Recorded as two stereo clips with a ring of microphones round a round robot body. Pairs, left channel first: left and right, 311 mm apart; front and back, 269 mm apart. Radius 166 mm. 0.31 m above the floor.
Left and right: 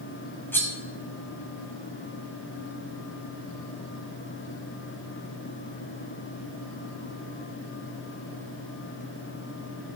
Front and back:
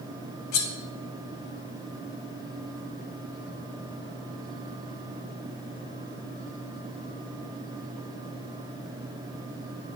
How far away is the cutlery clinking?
About 1.3 m.